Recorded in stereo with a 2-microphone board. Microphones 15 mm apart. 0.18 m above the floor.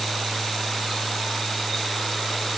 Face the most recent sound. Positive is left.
No sound to turn to.